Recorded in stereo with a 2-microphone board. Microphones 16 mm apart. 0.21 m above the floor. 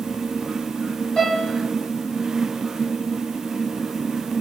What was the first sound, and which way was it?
A piano, 40° left (ahead or behind).